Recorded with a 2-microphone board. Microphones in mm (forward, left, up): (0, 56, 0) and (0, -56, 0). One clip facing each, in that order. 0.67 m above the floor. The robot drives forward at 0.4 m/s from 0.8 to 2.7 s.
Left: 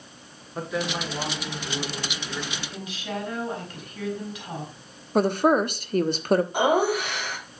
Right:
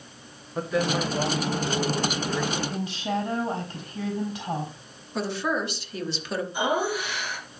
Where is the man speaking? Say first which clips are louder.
Right 4 dB; centre (ahead or behind), 2 m.